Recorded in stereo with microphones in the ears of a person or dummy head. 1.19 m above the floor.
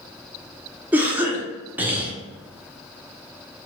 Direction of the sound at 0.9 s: 5° right (ahead or behind).